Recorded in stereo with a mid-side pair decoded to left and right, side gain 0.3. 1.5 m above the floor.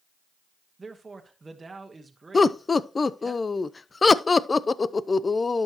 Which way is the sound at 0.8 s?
40° right.